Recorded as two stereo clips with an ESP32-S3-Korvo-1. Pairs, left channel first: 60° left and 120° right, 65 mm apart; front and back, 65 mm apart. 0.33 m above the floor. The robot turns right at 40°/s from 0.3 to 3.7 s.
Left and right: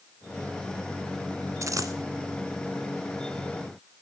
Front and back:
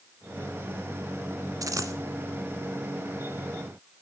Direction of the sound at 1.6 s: 155° right.